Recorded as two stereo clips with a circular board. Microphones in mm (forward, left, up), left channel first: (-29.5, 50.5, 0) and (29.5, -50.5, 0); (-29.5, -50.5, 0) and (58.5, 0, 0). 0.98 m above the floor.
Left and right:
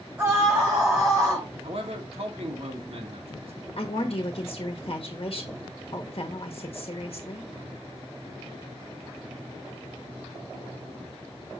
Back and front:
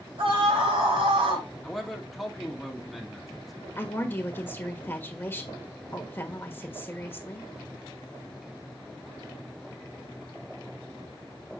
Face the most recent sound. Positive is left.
turn(degrees=145)